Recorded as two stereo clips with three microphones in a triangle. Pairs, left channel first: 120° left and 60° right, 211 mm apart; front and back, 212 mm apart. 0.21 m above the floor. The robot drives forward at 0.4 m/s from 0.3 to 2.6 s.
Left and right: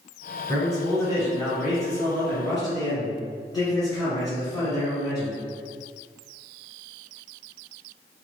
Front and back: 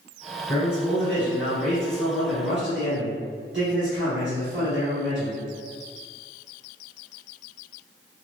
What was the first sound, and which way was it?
A man speaking, 125° right.